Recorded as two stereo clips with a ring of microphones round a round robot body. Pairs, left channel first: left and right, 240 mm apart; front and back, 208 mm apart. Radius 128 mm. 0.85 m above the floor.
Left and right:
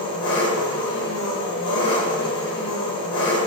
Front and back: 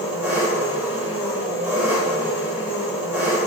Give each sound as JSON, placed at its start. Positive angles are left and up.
{"t": 0.0, "sound": "an engine running", "azimuth_deg": 100, "distance_m": 1.4}